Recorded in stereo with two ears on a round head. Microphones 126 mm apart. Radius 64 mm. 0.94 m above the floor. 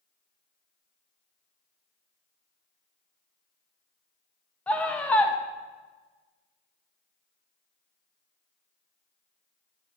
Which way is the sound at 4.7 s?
10° left (ahead or behind).